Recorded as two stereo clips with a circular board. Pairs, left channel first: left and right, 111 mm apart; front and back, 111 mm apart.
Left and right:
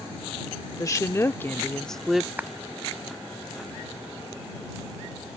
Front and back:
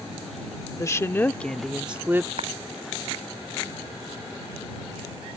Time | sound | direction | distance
0.8 | a woman speaking | 45° left | ?
2.4 | a clap | 165° right | ?